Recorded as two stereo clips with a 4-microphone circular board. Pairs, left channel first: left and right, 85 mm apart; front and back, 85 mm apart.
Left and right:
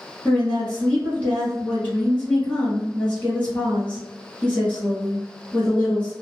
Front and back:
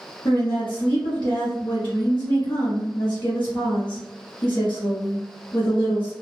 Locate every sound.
0.2 s a woman speaking: 20° left, 0.9 m